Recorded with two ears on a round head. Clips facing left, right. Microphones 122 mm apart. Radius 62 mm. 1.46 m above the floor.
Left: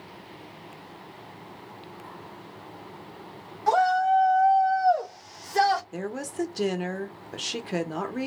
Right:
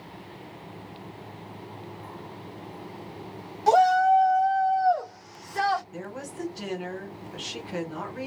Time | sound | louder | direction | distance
3.7 | a shout | right 3 dB | 25° right (ahead or behind) | 1.1 m
5.9 | a woman speaking | left 5 dB | 60° left (ahead or behind) | 1.0 m